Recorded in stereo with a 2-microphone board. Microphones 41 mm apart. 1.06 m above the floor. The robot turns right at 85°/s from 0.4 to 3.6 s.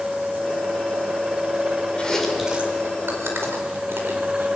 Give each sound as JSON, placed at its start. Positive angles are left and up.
{"t": 2.0, "sound": "chewing", "side_deg": 25, "distance_m": 4.5}